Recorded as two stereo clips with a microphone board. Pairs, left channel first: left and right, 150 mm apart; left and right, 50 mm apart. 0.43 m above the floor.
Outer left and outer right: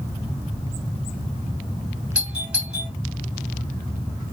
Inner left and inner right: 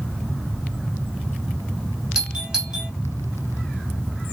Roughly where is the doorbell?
Centre.